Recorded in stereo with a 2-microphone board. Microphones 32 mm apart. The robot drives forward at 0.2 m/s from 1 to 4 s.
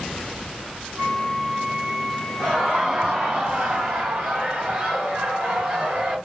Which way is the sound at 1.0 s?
35° right (ahead or behind).